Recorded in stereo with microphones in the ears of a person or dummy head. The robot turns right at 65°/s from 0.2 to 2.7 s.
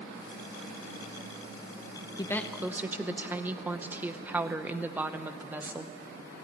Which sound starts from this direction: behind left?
A woman speaking, at 2.2 s.